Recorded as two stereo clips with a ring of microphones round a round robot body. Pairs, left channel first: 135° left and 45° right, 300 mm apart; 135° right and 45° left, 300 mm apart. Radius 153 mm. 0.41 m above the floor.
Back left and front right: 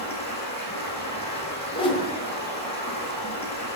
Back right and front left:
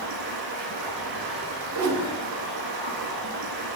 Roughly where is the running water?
Ahead left.